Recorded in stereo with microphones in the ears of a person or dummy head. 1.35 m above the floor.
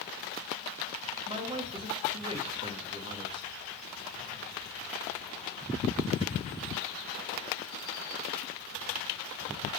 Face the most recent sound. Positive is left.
turn(degrees=-30)  # may be behind; listen again after turning